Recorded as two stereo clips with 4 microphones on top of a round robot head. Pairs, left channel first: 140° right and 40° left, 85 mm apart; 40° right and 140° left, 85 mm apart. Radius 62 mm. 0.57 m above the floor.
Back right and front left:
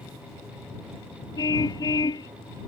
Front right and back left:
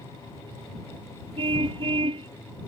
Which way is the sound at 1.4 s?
170° left.